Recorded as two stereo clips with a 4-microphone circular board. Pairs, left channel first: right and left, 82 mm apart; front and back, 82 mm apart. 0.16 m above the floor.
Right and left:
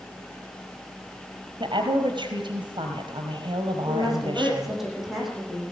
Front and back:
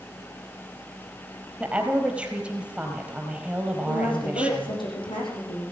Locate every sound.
1.6 s a woman speaking: 105° left, 4 m
3.9 s a woman speaking: 5° left, 10 m